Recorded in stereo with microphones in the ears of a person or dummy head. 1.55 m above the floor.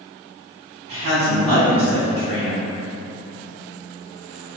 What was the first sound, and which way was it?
A woman speaking, 40° right (ahead or behind).